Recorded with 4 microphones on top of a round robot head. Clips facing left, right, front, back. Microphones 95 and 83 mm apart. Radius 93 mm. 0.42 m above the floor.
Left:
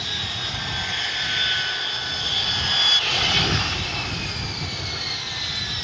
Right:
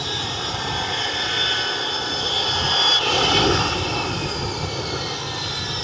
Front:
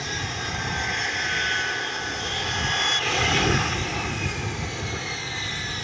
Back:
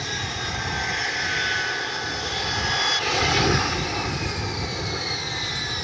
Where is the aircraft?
95° right; by 5.8 s 110° right.